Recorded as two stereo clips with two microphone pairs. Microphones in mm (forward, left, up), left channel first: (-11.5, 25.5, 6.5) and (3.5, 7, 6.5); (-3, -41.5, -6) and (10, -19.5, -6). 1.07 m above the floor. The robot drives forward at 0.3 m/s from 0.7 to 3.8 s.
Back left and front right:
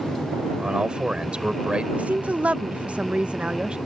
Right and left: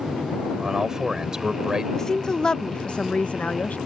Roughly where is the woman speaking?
Ahead right.